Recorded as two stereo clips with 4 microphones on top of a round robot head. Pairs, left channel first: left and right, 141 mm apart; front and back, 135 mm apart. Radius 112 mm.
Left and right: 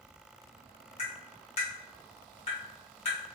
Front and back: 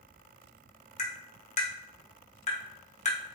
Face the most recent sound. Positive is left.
turn(degrees=35)